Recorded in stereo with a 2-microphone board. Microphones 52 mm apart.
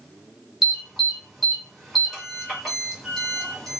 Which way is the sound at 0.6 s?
Centre (ahead or behind).